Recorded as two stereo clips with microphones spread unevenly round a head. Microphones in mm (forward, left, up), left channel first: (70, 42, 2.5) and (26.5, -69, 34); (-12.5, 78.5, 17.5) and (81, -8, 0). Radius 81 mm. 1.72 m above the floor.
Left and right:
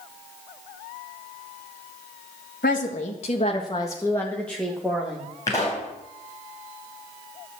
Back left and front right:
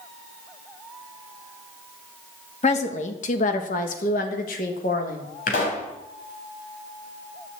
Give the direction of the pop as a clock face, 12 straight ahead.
7 o'clock.